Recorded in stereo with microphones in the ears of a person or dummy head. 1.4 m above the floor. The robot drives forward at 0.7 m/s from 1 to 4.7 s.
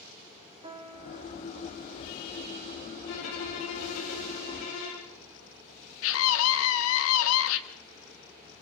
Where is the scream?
75° left (ahead or behind), 2.5 m.